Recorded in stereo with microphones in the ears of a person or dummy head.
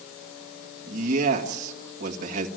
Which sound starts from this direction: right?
A man speaking, at 0.8 s.